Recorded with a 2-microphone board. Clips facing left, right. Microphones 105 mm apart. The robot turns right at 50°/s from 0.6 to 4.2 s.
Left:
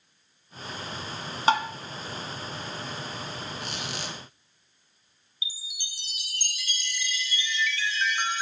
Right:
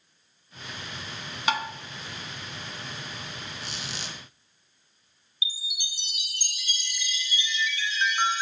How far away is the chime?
About 0.6 m.